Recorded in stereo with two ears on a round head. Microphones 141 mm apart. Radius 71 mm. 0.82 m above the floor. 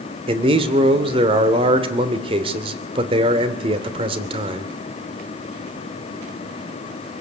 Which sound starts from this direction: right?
A man speaking, at 0.3 s.